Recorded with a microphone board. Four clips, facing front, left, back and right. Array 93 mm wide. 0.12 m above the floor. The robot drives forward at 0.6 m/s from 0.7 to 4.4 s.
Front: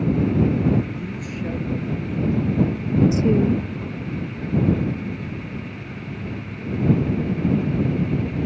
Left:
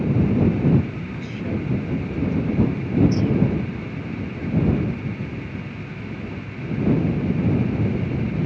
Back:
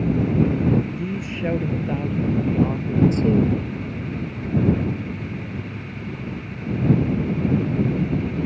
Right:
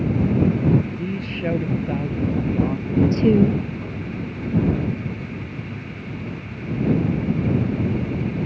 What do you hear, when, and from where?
0.9 s a man speaking: 120° right; by 3.0 s 145° right
3.1 s a woman speaking: 70° right; by 3.6 s 80° right